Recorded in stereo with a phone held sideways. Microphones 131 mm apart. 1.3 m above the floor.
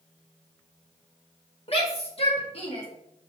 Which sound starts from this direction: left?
A shout, at 1.7 s.